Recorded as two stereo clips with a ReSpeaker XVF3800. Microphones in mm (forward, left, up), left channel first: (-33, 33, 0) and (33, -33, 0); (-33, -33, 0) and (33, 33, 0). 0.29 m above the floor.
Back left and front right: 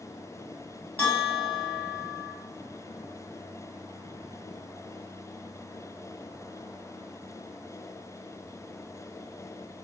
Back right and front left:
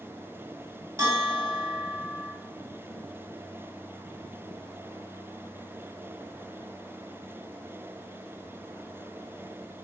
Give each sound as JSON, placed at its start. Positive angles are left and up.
{"t": 1.0, "sound": "a bell", "azimuth_deg": 80, "distance_m": 2.0}